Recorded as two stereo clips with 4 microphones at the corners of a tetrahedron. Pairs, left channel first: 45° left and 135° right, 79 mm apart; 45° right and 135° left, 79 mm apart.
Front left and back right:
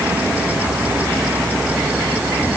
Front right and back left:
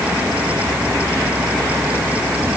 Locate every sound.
Only background noise.